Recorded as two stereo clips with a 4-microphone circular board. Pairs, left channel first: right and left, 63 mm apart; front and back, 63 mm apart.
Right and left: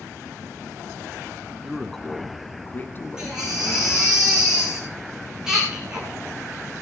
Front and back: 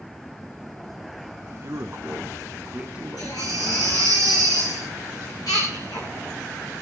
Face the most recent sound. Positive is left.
turn(degrees=10)